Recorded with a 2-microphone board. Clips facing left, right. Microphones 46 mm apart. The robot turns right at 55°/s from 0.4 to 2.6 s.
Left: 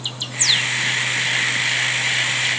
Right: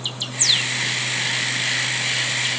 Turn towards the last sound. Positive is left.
No sound to turn to.